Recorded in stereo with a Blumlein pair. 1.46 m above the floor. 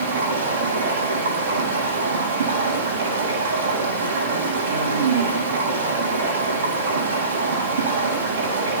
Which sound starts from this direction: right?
Running water, at 0.0 s.